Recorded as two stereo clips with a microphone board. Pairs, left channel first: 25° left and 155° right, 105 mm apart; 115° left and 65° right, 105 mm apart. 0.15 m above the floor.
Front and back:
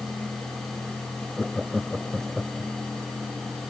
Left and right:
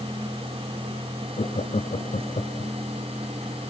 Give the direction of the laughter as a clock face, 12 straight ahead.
8 o'clock.